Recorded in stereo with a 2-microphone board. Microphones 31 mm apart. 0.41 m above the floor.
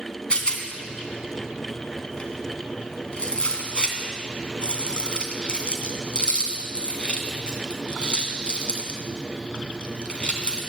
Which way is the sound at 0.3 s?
35° left (ahead or behind).